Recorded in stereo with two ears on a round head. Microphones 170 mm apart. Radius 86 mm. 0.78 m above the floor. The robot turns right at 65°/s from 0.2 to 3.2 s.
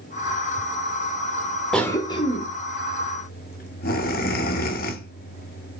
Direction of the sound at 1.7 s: 5° left (ahead or behind).